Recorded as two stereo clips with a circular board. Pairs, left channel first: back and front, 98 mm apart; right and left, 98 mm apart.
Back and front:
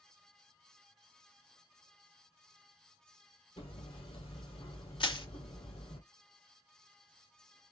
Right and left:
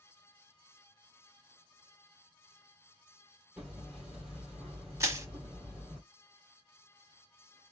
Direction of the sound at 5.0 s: 150° left.